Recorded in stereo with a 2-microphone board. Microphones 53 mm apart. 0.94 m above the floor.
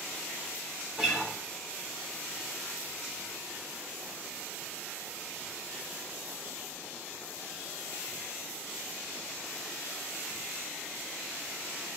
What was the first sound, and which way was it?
A guitar, 10° right (ahead or behind).